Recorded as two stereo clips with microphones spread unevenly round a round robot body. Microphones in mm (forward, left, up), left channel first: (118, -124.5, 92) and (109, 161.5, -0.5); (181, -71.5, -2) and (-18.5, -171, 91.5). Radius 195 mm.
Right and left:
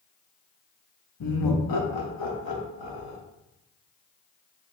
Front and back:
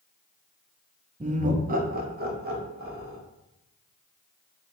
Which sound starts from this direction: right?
Laughter, at 1.2 s.